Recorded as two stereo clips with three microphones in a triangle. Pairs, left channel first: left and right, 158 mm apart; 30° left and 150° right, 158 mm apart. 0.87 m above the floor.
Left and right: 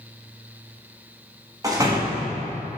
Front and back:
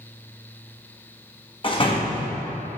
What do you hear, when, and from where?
1.6 s a door slam: 25° right, 1.0 m